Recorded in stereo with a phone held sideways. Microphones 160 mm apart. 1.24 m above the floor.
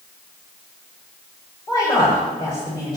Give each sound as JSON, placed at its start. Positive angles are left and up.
{"t": 1.7, "sound": "a woman speaking", "side_deg": 25, "distance_m": 8.0}